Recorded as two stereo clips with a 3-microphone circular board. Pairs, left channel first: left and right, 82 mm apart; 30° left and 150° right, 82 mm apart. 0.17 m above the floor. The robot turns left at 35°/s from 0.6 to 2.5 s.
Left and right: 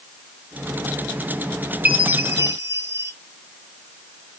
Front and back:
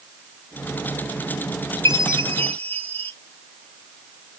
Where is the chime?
20° right, 1.5 m; by 3.1 s 40° right, 1.5 m.